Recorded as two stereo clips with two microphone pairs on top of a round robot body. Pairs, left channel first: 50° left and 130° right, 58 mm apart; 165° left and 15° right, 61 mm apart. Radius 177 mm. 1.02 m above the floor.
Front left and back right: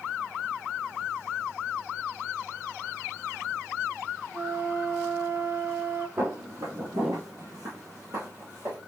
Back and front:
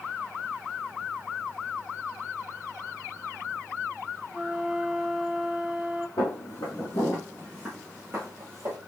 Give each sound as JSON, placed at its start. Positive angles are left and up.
{"t": 4.3, "sound": "a flute", "azimuth_deg": -95, "distance_m": 1.1}
{"t": 6.2, "sound": "footsteps", "azimuth_deg": 175, "distance_m": 1.9}